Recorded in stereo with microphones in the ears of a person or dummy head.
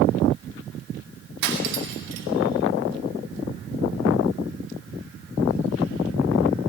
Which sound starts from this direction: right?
Cutlery clinking, at 1.4 s.